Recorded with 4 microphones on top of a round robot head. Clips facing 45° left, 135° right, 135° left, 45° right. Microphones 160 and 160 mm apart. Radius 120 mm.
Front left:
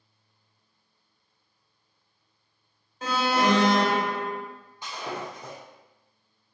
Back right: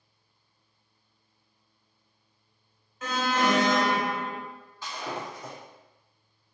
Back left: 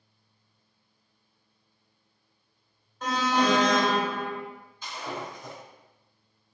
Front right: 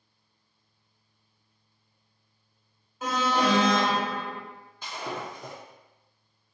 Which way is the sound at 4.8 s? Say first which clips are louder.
Front left 1 dB, front right 1 dB; 20° right.